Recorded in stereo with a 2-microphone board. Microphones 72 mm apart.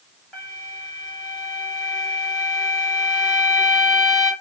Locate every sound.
0.3 s a flute: 5° left (ahead or behind), 1.4 m